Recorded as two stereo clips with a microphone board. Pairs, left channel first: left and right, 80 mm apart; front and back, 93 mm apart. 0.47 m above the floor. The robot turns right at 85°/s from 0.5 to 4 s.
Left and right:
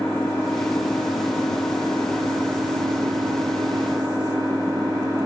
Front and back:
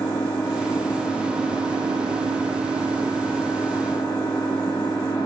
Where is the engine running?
20° left, 8.5 m; by 5.3 s 40° right, 8.5 m.